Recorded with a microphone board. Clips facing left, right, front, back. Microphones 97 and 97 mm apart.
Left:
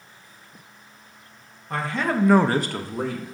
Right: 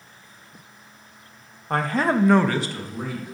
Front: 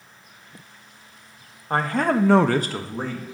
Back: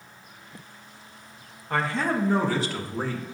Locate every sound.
1.7 s a man speaking: 55° right, 0.9 m; by 3.3 s 75° left, 1.2 m